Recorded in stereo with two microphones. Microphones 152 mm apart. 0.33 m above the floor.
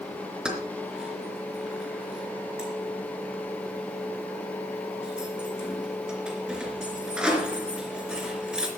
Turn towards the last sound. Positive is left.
turn(degrees=-5)  # may be behind; listen again after turning